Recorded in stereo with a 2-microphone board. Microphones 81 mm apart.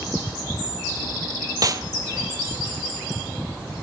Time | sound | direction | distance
1.6 | a snare drum | 45° right (ahead or behind) | 1.2 m